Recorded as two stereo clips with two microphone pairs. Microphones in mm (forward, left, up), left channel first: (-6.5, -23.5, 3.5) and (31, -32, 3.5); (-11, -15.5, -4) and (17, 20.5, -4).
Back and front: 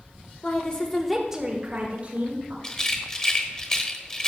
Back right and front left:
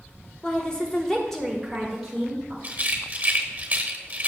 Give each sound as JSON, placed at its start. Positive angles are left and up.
{"t": 0.4, "sound": "a woman speaking", "azimuth_deg": 175, "distance_m": 1.4}
{"t": 2.6, "sound": "a rattle", "azimuth_deg": 105, "distance_m": 1.1}